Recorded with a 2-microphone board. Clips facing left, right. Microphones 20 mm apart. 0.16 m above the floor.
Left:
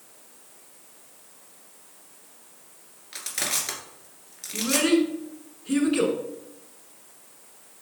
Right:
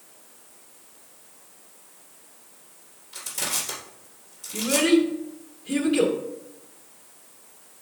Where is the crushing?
60° left (ahead or behind), 2 m.